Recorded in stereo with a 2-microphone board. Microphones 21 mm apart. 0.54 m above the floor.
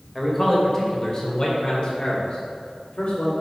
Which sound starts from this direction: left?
A man speaking, at 0.1 s.